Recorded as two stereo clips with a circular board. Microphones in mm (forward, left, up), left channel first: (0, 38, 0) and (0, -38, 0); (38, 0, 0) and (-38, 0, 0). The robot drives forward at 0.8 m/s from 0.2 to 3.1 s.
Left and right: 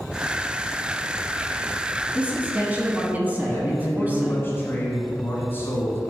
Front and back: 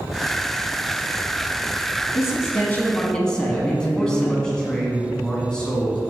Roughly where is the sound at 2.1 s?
Ahead right.